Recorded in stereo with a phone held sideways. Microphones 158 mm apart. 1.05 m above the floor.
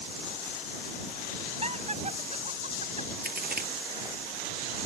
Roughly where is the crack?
Right.